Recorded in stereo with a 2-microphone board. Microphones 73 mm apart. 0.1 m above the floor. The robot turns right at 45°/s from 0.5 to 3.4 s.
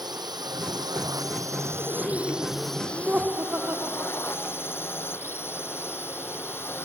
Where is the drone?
95° right; by 6.8 s 35° left.